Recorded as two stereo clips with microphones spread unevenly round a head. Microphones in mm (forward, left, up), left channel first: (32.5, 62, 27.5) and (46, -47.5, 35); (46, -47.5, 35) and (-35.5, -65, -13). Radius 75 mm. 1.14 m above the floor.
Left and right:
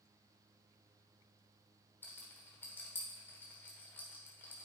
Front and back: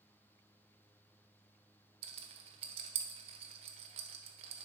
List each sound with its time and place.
2.0 s a rattle: 170° left, 0.9 m